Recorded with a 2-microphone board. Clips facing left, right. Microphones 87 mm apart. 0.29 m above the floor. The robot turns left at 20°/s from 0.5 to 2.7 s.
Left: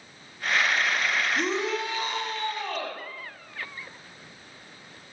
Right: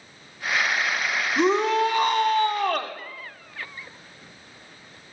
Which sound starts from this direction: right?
A shout, at 1.4 s.